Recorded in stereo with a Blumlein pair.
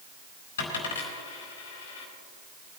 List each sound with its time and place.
0.6 s a dropped coin: 60° left, 5 m